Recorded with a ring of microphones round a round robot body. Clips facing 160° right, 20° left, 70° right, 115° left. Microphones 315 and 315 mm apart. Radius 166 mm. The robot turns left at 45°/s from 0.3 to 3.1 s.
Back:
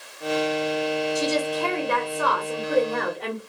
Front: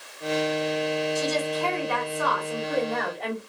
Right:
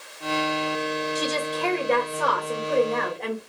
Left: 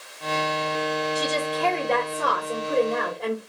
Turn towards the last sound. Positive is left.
turn(degrees=180)